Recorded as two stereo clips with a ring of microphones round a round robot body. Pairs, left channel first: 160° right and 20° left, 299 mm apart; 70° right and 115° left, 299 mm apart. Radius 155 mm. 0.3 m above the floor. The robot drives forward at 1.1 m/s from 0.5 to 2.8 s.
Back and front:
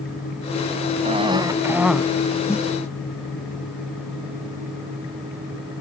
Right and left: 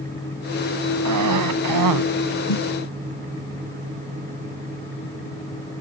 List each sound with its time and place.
1.1 s a cough: 90° left; by 2.1 s 110° left
2.5 s a snare drum: 75° right